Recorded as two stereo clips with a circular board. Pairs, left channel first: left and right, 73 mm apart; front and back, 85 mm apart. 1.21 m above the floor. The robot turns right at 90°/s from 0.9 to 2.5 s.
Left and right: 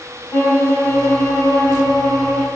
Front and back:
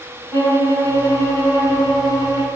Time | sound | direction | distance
0.3 | a violin | 50° left | 1.3 m